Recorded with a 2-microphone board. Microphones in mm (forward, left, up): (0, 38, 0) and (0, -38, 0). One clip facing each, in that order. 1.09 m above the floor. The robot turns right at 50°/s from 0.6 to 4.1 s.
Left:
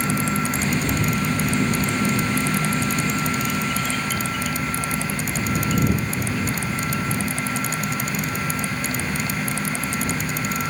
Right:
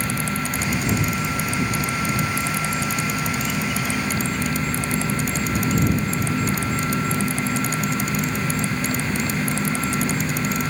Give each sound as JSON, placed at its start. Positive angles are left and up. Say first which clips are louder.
{"t": 0.0, "sound": "an insect", "louder": "left 3 dB", "azimuth_deg": 30}